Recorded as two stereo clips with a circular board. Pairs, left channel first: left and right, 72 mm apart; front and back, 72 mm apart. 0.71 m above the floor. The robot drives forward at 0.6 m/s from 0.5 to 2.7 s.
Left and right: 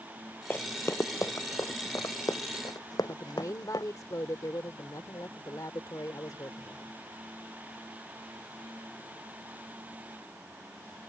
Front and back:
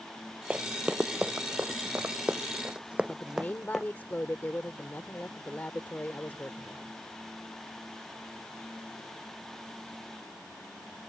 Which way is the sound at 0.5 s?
120° left.